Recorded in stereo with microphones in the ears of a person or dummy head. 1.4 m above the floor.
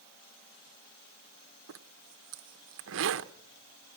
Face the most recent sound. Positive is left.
turn(degrees=-70)  # may be behind; listen again after turning